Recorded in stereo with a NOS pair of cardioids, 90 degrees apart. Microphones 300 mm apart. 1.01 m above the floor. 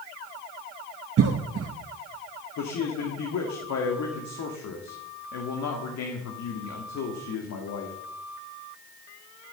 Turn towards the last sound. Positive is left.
turn(degrees=60)